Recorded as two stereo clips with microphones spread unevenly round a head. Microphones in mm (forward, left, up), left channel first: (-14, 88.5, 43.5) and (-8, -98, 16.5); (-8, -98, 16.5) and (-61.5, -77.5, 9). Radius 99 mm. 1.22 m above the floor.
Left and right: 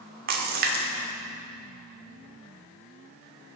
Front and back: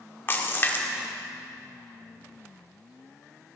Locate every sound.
0.3 s a splash: 45° right, 1.0 m